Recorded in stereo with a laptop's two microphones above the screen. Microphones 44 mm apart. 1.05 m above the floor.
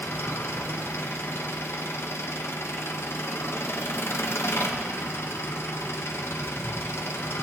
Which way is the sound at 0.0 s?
65° left (ahead or behind).